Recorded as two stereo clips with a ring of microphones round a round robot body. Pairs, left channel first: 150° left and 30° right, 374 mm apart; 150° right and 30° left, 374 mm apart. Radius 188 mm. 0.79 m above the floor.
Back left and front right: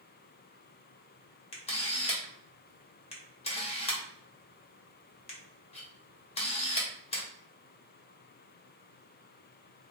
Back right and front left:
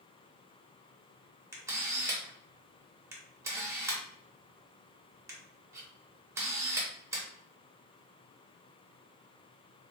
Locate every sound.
1.5 s a camera shutter: 100° left, 0.9 m